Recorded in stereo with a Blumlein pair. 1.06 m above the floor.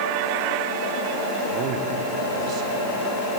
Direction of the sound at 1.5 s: 35° right.